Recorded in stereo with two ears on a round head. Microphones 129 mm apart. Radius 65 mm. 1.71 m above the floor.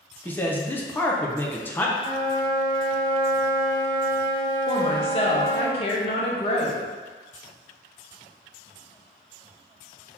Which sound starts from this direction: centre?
A man speaking, at 0.2 s.